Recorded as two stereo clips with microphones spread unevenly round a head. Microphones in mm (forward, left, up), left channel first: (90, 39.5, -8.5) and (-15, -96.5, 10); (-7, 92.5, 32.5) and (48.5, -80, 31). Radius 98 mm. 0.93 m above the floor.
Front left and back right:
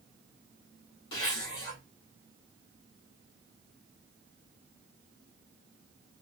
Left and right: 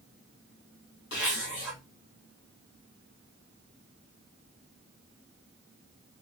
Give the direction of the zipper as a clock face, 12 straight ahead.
9 o'clock.